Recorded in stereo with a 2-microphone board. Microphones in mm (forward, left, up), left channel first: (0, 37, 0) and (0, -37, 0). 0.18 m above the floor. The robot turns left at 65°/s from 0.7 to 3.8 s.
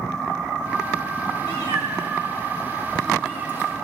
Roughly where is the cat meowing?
Left.